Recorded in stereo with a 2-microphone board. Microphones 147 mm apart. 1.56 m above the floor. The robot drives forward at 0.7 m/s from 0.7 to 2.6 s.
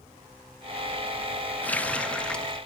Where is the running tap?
10° left (ahead or behind), 0.6 m; by 2.6 s 5° left (ahead or behind), 1.0 m.